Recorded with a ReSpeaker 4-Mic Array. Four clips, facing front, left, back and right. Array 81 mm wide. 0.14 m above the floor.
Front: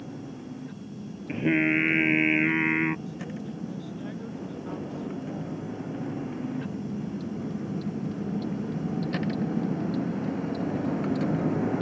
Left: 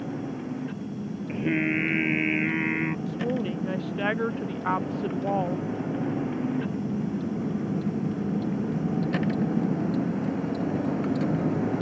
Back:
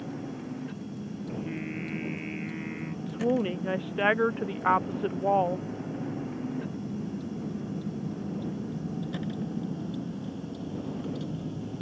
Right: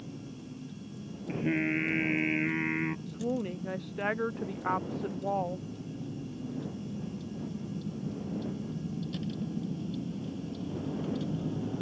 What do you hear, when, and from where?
0.0 s a vehicle: 100° left; by 11.8 s 40° left
1.3 s singing: 10° left
3.1 s a woman speaking: 165° left